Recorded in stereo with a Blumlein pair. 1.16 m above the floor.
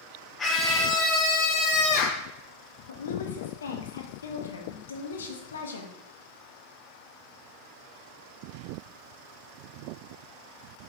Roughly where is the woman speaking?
Ahead left.